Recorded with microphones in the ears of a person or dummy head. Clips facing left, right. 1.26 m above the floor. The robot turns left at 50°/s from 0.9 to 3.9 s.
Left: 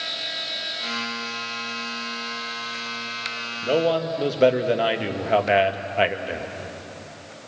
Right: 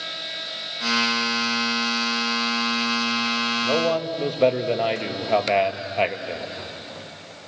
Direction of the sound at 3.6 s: 20° left (ahead or behind).